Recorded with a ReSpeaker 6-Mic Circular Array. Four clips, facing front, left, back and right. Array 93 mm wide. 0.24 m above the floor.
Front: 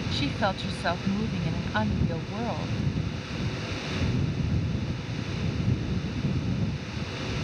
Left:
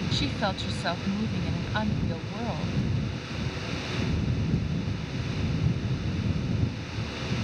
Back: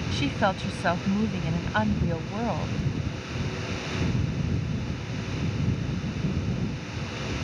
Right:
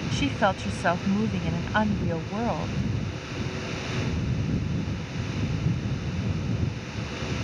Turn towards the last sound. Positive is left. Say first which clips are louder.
# right 8 dB, back 3 dB
turn(degrees=-115)